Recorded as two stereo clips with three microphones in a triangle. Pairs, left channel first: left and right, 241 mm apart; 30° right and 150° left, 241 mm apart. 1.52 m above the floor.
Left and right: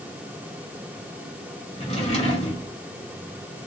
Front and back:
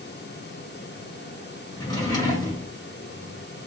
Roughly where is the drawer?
Ahead left.